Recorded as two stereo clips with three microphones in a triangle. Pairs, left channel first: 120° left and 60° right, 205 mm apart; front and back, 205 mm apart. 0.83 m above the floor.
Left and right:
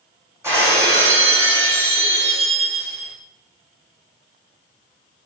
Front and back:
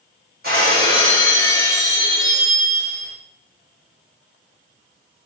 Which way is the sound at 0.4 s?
135° right.